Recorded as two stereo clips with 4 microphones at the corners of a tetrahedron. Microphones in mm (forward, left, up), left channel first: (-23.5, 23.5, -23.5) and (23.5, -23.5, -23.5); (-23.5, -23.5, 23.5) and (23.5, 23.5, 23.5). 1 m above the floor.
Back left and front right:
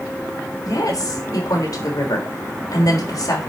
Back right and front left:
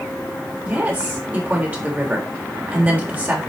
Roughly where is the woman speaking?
Left.